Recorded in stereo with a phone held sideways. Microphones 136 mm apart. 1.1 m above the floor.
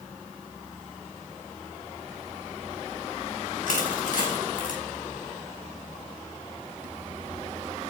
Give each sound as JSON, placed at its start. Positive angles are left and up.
{"t": 3.7, "sound": "crushing", "side_deg": 85, "distance_m": 5.5}